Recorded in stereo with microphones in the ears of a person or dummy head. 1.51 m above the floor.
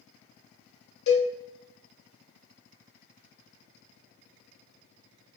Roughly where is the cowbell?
Left.